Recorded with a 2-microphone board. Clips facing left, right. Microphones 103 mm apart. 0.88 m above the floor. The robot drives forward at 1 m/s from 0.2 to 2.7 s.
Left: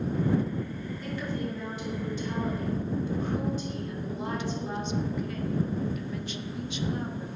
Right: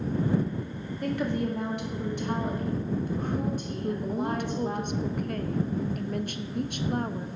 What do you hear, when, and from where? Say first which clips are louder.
1.0 s a woman speaking: right 6 dB; 55° right (ahead or behind), 1.8 m
3.8 s a woman speaking: right 5 dB; 55° right (ahead or behind), 0.6 m